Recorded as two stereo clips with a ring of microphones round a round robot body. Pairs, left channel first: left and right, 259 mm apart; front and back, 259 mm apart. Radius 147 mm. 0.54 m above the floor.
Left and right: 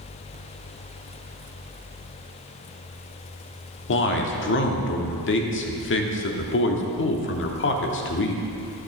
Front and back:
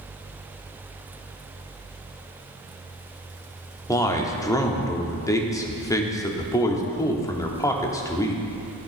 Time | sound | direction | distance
3.9 | a man speaking | 75° left | 1.1 m